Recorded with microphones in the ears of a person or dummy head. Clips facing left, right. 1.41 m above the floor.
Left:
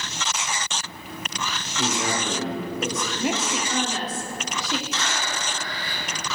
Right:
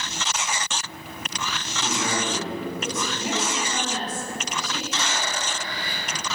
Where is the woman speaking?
55° left (ahead or behind), 0.8 m.